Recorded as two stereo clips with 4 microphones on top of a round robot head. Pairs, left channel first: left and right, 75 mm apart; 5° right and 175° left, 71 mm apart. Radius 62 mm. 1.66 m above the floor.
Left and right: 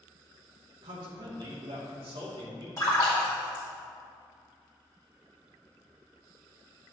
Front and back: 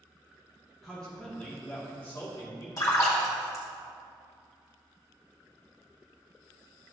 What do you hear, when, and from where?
0.8 s a man speaking: 90° right, 2 m; by 2.7 s 65° right, 2 m
2.8 s a splash: 30° left, 2 m